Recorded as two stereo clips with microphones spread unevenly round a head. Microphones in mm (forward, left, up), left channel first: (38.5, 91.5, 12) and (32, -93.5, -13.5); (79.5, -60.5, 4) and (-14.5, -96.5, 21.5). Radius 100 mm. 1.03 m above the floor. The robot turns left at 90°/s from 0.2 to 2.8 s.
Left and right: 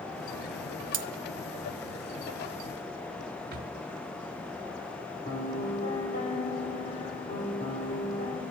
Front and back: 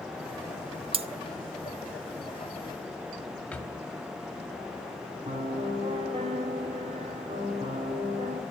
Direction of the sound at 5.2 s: 145° left.